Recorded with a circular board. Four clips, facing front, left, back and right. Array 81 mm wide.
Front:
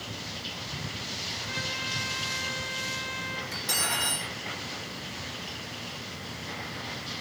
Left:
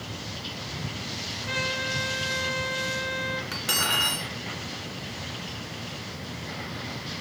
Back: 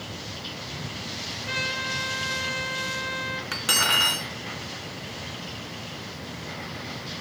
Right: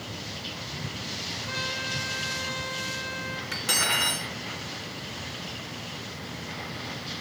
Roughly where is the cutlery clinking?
Behind.